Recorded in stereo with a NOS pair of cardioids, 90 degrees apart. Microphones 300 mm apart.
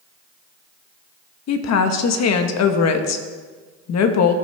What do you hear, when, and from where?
1.5 s a woman speaking: 60° left, 1.3 m